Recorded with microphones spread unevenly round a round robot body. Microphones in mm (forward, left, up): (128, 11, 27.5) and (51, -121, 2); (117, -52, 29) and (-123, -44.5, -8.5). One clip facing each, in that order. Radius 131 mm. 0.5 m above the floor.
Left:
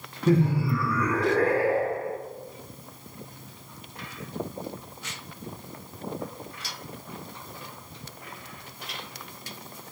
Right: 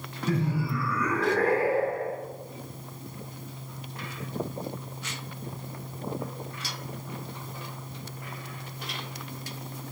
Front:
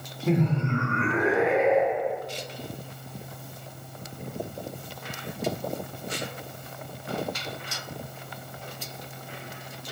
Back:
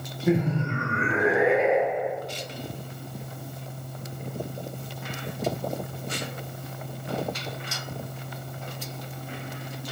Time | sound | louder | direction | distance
0.3 | laughter | left 6 dB, back 1 dB | 105° left | 1.0 m